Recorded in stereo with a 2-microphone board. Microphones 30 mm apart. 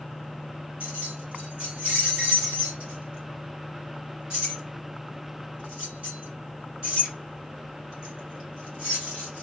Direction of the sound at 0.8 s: 45° right (ahead or behind).